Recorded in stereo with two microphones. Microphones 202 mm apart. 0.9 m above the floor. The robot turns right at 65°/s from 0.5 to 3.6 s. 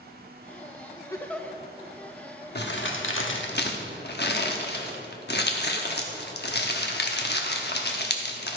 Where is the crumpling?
55° left (ahead or behind), 0.9 m.